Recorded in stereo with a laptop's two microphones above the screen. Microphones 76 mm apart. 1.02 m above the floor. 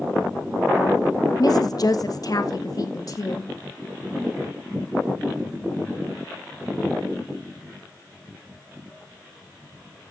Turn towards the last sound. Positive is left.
turn(degrees=50)  # may be behind; listen again after turning